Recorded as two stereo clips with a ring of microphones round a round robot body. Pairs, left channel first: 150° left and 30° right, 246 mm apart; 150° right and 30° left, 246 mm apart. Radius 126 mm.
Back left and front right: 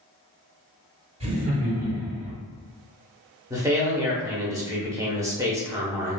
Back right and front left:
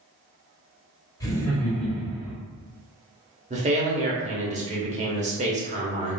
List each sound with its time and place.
1.2 s laughter: 80° right, 1.6 m; by 2.3 s 55° right, 1.8 m
3.5 s a man speaking: 35° left, 1.0 m